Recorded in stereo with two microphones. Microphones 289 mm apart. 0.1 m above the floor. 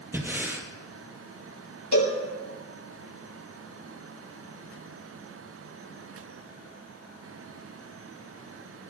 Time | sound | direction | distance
0.1 | breathing | 10° right (ahead or behind) | 2.5 m
1.9 | a cowbell | 85° left | 7 m